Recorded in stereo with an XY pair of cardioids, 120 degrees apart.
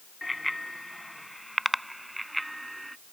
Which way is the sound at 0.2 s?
10° left.